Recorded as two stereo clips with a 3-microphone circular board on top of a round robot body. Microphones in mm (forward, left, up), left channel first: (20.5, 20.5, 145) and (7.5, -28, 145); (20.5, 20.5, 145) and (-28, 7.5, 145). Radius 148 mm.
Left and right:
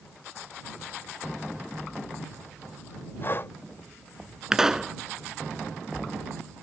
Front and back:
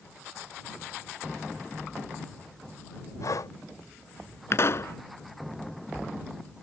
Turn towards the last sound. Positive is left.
turn(degrees=-25)